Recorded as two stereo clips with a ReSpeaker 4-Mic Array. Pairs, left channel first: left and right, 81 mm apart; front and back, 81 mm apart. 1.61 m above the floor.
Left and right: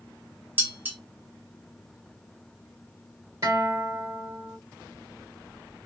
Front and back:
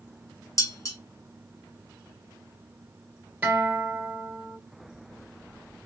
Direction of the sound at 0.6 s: 35° right.